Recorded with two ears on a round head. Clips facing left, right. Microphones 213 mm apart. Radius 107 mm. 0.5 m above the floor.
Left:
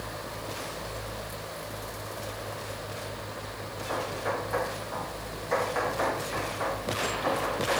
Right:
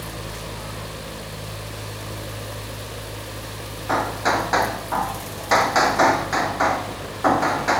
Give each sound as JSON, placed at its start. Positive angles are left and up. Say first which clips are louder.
{"t": 3.9, "sound": "hammering", "louder": "right 8 dB", "side_deg": -85}